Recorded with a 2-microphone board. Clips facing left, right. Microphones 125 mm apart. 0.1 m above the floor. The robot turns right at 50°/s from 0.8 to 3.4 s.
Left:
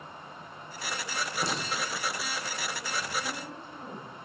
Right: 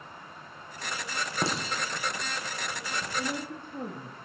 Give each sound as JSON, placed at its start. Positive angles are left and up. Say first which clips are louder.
{"t": 1.4, "sound": "a clink", "louder": "right 3 dB", "side_deg": -70, "distance_m": 5.0}
{"t": 3.2, "sound": "a woman speaking", "louder": "right 3 dB", "side_deg": -70, "distance_m": 4.0}